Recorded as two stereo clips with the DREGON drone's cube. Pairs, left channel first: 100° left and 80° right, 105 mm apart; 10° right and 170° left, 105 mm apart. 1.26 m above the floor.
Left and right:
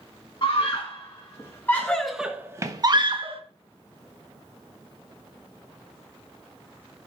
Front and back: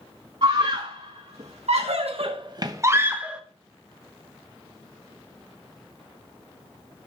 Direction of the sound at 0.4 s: 140° left.